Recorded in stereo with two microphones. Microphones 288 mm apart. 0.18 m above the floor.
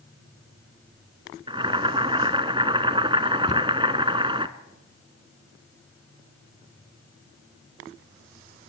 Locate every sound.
1.5 s boiling: 15° right (ahead or behind), 1.2 m
3.5 s a cupboard door: 20° left (ahead or behind), 0.6 m